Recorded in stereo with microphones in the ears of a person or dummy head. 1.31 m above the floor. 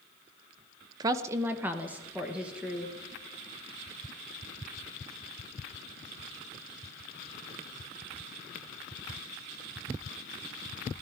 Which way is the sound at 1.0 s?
25° right (ahead or behind).